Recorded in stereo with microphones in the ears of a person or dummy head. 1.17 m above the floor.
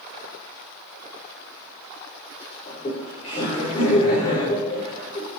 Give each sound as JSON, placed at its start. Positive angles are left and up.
{"t": 2.7, "sound": "laughter", "side_deg": 30, "distance_m": 3.5}